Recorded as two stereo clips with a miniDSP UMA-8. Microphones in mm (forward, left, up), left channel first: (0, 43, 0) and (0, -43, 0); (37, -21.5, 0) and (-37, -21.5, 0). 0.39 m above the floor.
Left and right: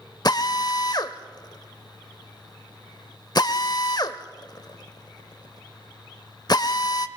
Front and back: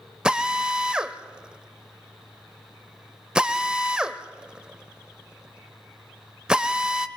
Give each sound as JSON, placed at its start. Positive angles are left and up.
{"t": 0.2, "sound": "a drill", "azimuth_deg": 105, "distance_m": 0.8}